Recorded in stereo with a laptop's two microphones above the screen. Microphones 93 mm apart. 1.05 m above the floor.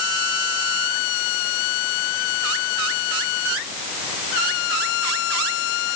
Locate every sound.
Only background noise.